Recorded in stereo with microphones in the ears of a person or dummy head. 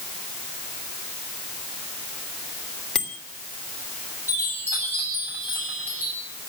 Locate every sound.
3.0 s a bicycle bell: 5° left (ahead or behind), 3 m
4.3 s a chime: 15° right (ahead or behind), 8.5 m